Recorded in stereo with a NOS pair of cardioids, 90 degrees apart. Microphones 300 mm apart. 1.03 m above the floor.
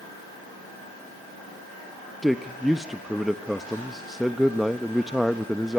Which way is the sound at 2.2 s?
Straight ahead.